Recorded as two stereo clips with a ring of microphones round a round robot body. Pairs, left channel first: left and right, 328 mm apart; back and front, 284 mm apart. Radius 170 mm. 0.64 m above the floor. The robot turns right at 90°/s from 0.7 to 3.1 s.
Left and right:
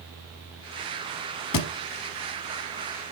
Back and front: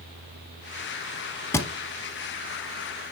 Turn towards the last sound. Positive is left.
turn(degrees=-120)